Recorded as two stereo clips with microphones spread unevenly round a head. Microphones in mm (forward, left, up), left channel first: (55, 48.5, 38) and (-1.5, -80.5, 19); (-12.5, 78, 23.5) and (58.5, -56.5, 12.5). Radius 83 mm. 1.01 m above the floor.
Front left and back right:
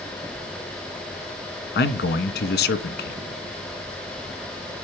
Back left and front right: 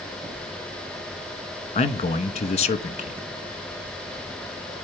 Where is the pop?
No pop in this recording.